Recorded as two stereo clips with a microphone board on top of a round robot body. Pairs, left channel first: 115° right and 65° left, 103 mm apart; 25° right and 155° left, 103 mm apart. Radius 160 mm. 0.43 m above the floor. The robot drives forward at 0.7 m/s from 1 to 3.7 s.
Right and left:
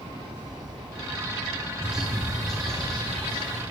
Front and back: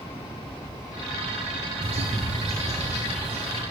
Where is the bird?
150° left, 0.9 m; by 3.6 s 170° left, 2 m.